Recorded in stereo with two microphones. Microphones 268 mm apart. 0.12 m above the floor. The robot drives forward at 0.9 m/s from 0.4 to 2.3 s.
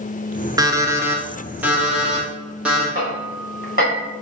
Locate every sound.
0.6 s an alarm clock: 15° right (ahead or behind), 0.7 m; by 2.9 s 5° right (ahead or behind), 2 m
3.0 s hammering: 35° right (ahead or behind), 3 m